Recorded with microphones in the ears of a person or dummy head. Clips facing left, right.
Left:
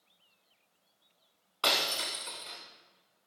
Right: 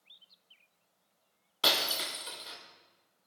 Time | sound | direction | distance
1.6 | breaking glass | 15° right (ahead or behind) | 1.7 m